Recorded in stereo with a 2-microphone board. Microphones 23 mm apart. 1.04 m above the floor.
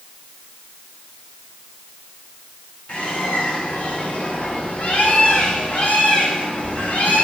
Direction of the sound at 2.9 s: 60° left (ahead or behind).